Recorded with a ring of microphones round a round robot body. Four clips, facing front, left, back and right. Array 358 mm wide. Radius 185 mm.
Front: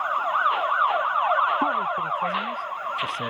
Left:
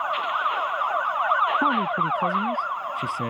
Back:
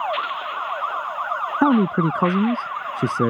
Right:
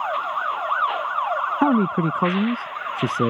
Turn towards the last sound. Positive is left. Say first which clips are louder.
# right 4 dB, back 7 dB
turn(degrees=-145)